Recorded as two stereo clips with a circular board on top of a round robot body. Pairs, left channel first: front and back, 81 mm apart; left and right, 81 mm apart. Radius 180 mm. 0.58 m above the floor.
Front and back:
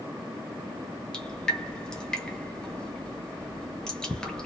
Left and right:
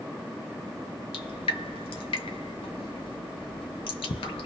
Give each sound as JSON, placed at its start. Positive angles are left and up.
{"t": 1.1, "sound": "dripping", "azimuth_deg": 80, "distance_m": 0.8}